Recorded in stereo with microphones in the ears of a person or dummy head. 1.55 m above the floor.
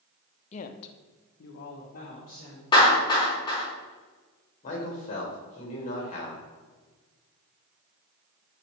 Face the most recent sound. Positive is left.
turn(degrees=45)  # may be behind; listen again after turning